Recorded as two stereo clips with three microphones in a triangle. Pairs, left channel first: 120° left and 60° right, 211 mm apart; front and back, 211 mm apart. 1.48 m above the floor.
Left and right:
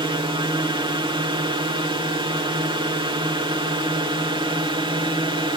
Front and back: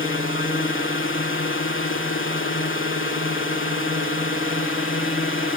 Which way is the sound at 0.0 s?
5° left.